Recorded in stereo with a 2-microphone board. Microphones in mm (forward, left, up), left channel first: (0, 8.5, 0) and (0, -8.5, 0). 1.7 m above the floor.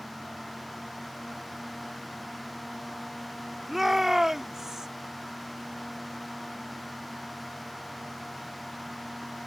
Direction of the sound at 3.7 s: 20° right (ahead or behind).